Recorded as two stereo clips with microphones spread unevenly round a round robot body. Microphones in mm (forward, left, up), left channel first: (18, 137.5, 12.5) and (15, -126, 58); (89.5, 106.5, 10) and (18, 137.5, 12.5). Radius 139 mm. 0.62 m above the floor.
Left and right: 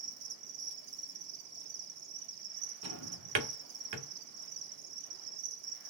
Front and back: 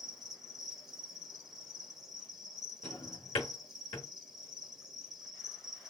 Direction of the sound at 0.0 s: 115° right.